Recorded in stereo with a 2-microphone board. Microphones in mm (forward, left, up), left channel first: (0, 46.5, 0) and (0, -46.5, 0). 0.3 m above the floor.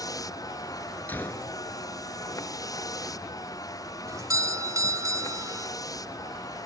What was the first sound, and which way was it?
A vehicle, 40° left (ahead or behind).